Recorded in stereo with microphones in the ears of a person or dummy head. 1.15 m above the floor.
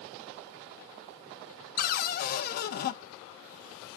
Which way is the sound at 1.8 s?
45° left (ahead or behind).